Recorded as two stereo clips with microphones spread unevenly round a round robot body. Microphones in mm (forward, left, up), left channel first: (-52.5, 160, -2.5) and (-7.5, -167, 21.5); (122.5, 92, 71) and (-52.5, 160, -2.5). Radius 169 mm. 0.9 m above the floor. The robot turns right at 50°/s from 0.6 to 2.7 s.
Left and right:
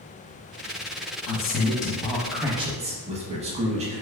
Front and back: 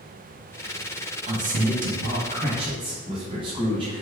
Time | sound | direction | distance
1.3 | a man speaking | 135° left | 0.8 m